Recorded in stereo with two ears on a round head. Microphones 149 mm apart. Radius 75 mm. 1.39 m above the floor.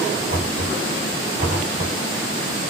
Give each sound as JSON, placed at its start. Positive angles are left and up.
{"t": 0.3, "sound": "knocking", "side_deg": -40, "distance_m": 2.0}